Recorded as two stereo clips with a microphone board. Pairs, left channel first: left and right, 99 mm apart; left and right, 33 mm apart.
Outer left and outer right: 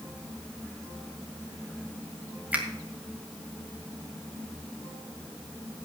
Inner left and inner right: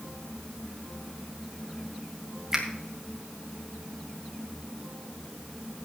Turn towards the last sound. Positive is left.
turn(degrees=-15)  # may be behind; listen again after turning